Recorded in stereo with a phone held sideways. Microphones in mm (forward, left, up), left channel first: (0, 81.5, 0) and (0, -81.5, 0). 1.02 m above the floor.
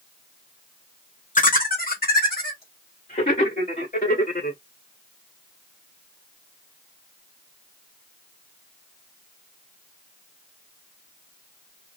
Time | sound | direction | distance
1.4 | laughter | 55° left (ahead or behind) | 0.7 m